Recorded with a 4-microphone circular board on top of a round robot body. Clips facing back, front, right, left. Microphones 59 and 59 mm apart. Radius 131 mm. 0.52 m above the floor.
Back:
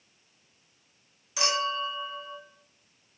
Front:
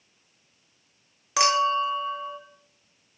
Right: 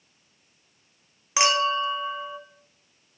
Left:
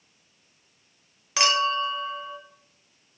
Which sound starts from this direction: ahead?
A clink, at 1.4 s.